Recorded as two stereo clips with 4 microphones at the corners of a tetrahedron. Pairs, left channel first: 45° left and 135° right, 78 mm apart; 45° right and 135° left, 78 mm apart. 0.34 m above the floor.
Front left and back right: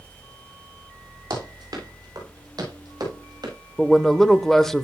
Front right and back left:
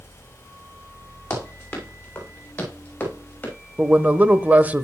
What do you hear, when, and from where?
1.3 s running footsteps: 105° right, 8 m
3.8 s a man speaking: 125° left, 0.9 m